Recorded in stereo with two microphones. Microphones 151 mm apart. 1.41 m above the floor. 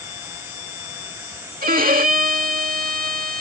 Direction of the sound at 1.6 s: 70° right (ahead or behind).